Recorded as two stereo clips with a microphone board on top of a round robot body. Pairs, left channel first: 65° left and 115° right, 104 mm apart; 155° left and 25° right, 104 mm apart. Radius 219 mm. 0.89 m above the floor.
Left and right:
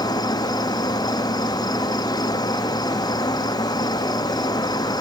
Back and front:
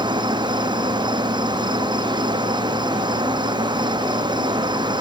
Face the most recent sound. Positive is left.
turn(degrees=20)